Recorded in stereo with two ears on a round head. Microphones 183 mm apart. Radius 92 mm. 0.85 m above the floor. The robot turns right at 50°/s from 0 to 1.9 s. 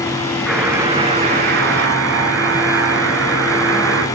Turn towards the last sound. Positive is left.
turn(degrees=-105)